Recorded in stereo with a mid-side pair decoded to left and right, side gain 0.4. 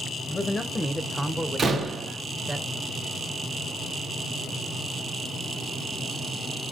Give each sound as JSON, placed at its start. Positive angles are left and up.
{"t": 0.3, "sound": "a man speaking", "azimuth_deg": 45, "distance_m": 0.6}
{"t": 1.6, "sound": "a door slam", "azimuth_deg": -50, "distance_m": 0.8}